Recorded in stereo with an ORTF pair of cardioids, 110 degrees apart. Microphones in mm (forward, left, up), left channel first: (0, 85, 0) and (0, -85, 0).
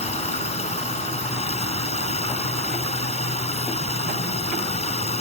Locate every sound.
0.0 s running water: 40° left